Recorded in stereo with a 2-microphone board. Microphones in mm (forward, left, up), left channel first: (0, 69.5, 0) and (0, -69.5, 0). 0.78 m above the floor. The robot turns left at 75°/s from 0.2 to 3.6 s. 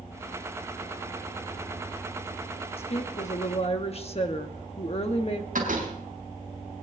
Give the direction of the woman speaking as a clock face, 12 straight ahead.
8 o'clock.